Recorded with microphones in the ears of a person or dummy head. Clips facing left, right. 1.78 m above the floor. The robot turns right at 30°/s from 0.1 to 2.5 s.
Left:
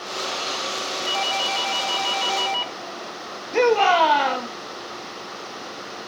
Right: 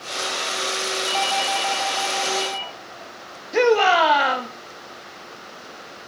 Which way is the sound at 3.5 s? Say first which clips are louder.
Right 1 dB; 5° right (ahead or behind).